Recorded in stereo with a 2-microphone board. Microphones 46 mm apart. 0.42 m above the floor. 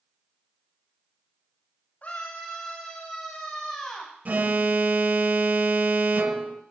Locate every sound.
2.0 s a scream: 40° left (ahead or behind), 2.5 m; by 4.1 s 15° left (ahead or behind), 3 m
4.2 s an alarm: 45° right (ahead or behind), 1.0 m